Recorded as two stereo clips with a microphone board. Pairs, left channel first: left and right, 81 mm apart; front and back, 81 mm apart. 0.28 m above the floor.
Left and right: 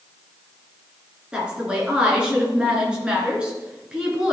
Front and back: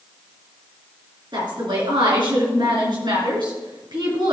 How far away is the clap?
No clap in this recording.